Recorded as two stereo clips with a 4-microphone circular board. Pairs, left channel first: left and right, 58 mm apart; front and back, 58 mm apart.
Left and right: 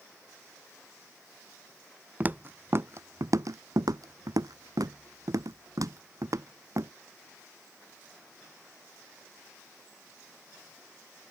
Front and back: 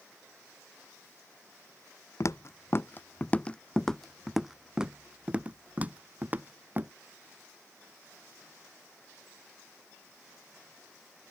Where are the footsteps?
30° right; by 6.9 s 125° right.